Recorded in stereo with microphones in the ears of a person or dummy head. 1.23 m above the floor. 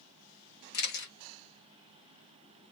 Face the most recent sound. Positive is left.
turn(degrees=50)  # may be behind; listen again after turning